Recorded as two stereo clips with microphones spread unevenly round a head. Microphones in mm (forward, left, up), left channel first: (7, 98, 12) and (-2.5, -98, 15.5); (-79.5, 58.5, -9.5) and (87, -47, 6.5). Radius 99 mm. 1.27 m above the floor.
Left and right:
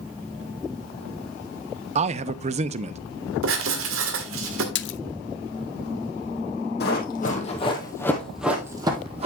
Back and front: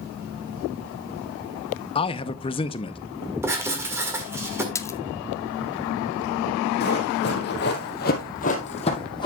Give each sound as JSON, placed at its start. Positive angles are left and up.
{"t": 1.9, "sound": "a man speaking", "azimuth_deg": -150, "distance_m": 0.5}
{"t": 3.4, "sound": "writing", "azimuth_deg": -110, "distance_m": 1.6}
{"t": 4.8, "sound": "a splash", "azimuth_deg": 70, "distance_m": 0.5}
{"t": 6.8, "sound": "running footsteps", "azimuth_deg": 115, "distance_m": 2.0}